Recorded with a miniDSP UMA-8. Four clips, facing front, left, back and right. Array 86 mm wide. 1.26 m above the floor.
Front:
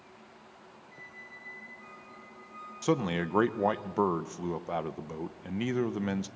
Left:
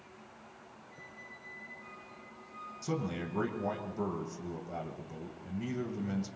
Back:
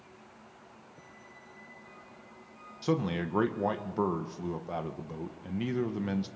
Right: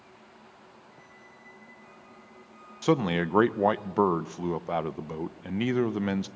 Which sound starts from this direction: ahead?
A squeak, at 0.9 s.